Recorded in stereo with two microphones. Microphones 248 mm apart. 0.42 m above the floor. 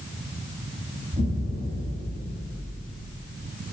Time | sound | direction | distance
1.1 | an explosion | 35° right (ahead or behind) | 1.7 m